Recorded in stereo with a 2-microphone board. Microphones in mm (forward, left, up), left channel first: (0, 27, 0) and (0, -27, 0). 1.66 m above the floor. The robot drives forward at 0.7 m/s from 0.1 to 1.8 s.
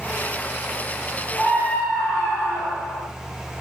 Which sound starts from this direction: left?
A scream, at 1.4 s.